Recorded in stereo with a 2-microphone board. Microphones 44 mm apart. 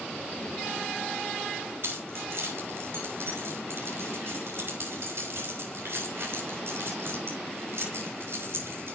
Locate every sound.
1.8 s keys jangling: 60° right (ahead or behind), 3 m